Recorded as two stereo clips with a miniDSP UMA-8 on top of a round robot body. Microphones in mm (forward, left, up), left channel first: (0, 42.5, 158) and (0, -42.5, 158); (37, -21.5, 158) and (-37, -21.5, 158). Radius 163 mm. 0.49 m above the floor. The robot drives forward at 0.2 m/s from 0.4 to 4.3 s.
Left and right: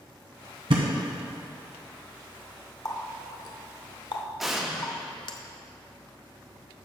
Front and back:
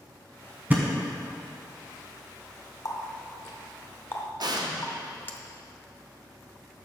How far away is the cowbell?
I don't hear a cowbell.